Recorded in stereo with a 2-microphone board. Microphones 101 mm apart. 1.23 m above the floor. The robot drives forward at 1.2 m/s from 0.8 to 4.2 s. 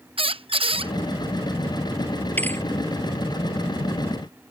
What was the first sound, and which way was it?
A squeak, 65° right (ahead or behind).